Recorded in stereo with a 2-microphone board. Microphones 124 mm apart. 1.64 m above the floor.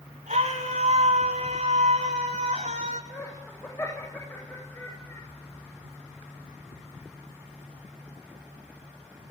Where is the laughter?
20° left (ahead or behind), 8 m.